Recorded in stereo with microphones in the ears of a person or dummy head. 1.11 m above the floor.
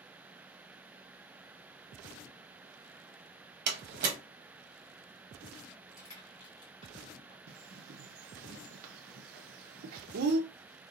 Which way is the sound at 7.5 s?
50° right (ahead or behind).